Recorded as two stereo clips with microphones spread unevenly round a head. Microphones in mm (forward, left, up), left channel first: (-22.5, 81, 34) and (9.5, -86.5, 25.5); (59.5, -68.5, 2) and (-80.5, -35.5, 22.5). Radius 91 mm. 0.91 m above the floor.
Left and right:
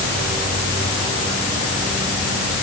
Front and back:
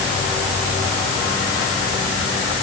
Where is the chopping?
I don't hear chopping.